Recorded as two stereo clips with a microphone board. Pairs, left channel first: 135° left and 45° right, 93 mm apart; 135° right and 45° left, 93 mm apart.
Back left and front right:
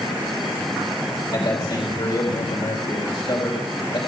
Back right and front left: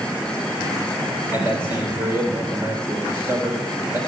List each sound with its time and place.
1.3 s a man speaking: 105° left, 3 m